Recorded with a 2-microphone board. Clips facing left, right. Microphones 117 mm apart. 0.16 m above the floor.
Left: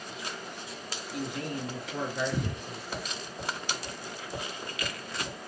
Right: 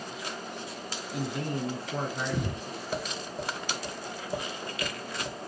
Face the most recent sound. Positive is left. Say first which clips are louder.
# right 5 dB
turn(degrees=-35)  # may be behind; listen again after turning